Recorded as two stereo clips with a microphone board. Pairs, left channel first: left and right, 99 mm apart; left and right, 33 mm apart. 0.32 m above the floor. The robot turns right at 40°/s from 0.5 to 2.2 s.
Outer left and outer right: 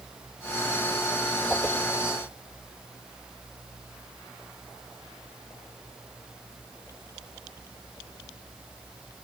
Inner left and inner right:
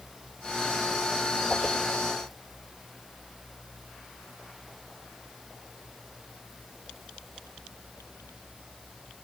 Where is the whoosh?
5° right (ahead or behind), 1.6 m; by 1.8 s 15° right (ahead or behind), 1.6 m.